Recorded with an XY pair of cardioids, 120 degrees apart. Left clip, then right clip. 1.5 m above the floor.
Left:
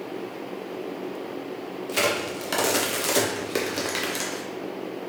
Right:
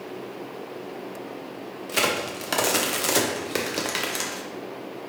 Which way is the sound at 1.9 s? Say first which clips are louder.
Even; 15° right.